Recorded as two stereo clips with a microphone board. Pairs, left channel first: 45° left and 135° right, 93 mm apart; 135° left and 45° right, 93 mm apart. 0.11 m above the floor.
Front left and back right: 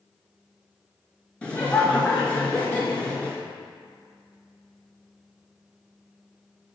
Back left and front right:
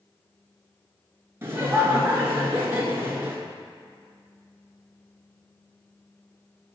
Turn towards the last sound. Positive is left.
turn(degrees=-20)